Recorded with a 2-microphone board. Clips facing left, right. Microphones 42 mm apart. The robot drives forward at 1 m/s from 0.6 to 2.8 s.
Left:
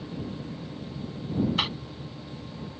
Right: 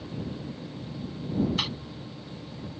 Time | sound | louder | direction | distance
1.6 | a cough | left 3 dB | 20° left (ahead or behind) | ?